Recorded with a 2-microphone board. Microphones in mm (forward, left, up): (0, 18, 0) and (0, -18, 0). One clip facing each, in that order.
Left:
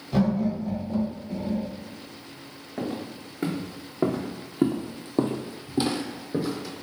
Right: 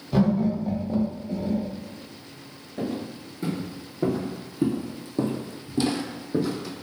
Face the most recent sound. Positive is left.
turn(degrees=-5)  # may be behind; listen again after turning